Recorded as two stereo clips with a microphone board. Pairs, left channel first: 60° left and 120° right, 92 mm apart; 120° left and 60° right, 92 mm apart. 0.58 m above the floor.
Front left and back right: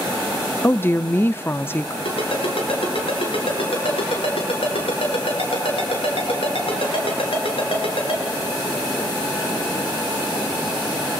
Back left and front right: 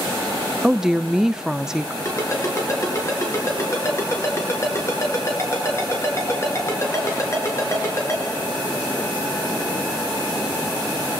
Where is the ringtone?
60° left, 6 m.